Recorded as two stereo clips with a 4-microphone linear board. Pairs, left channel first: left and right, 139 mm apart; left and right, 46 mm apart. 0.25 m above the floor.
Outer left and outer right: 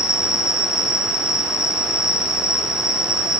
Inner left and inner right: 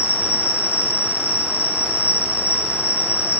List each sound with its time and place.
0.0 s an insect: 55° left (ahead or behind), 0.9 m